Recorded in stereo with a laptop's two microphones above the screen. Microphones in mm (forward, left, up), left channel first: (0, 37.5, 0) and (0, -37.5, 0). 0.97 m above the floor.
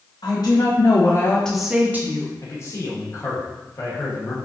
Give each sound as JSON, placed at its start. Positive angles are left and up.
{"t": 0.2, "sound": "a woman speaking", "side_deg": 65, "distance_m": 1.0}
{"t": 2.4, "sound": "a man speaking", "side_deg": 40, "distance_m": 1.0}